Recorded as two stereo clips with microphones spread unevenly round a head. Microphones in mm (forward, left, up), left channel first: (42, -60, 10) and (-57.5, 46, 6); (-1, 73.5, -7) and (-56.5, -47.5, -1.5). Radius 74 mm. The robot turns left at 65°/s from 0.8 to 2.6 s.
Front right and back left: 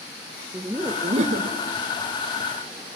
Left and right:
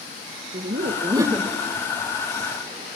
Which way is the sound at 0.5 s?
155° right.